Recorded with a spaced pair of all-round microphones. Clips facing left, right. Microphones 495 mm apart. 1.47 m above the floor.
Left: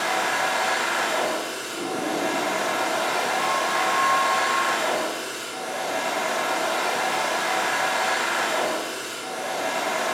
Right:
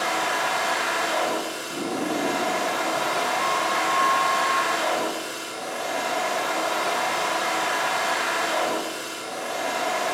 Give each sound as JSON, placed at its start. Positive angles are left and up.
{"t": 0.0, "sound": "a machine running", "side_deg": 85, "distance_m": 2.5}
{"t": 1.7, "sound": "a sliding door", "side_deg": -45, "distance_m": 1.3}